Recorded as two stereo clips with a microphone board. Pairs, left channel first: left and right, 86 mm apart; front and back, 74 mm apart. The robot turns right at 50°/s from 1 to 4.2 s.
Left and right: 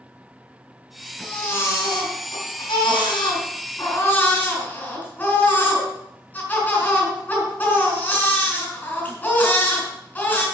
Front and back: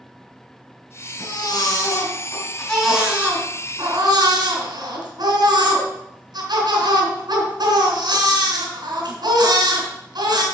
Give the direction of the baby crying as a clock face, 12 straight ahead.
12 o'clock.